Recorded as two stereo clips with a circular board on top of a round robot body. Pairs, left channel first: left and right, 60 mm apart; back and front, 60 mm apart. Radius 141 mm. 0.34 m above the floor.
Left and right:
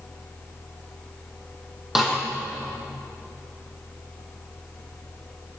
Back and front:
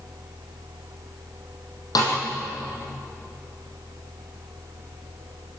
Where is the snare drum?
175° right, 7.5 m.